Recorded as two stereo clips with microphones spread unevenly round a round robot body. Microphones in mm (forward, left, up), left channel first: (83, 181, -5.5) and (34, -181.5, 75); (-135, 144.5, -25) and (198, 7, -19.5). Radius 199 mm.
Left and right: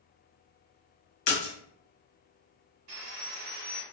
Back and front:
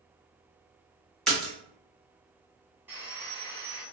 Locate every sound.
1.3 s a splash: 70° left, 1.5 m
2.9 s sawing: 105° right, 1.0 m